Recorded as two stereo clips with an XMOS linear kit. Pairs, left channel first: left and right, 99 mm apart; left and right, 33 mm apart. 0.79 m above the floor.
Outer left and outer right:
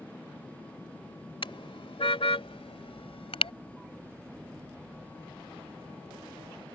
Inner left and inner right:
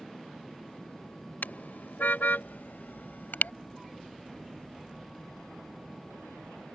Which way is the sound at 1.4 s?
70° left (ahead or behind).